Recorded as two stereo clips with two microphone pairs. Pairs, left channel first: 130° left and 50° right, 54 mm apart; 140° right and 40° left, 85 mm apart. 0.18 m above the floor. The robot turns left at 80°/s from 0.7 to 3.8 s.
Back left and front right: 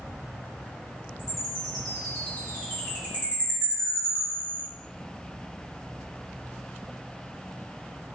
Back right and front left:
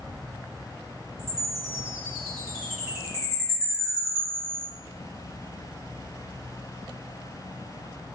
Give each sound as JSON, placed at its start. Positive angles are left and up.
{"t": 1.2, "sound": "a chime", "azimuth_deg": -105, "distance_m": 1.8}